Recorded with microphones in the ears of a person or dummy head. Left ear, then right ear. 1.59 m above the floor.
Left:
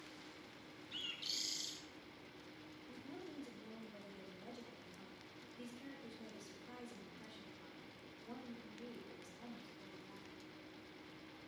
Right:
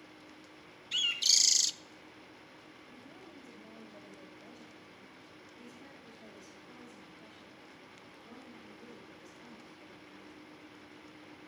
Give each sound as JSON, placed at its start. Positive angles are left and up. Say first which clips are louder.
{"t": 0.9, "sound": "a bird", "louder": "right 16 dB", "side_deg": -60, "distance_m": 0.5}
{"t": 2.9, "sound": "a woman speaking", "louder": "left 3 dB", "side_deg": 70, "distance_m": 6.5}